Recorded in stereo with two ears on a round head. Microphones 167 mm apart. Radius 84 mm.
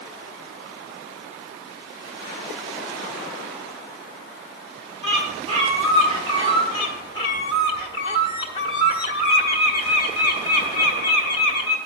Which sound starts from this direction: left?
A bird, at 6.7 s.